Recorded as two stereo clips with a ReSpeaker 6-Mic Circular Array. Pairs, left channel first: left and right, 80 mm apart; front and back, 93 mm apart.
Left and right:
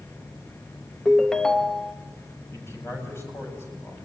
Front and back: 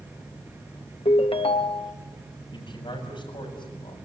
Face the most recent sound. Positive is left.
turn(degrees=30)